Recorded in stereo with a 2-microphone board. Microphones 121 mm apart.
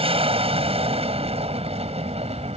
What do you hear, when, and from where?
0.0 s an aircraft: 55° right (ahead or behind); by 2.6 s 60° right (ahead or behind)